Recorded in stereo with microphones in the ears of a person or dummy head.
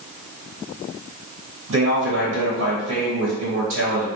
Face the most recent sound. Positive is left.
turn(degrees=-80)